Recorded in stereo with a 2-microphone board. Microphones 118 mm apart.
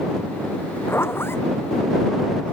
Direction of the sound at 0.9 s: 20° left (ahead or behind).